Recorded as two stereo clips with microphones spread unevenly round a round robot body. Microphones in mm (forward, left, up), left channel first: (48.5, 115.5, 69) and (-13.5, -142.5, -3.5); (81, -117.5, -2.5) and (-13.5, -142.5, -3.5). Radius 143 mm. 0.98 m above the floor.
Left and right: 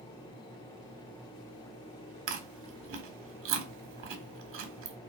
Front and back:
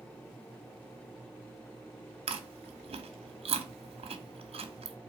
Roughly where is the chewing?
Behind.